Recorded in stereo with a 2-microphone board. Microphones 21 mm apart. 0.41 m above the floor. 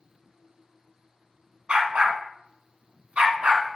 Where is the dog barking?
70° right (ahead or behind), 1.3 m.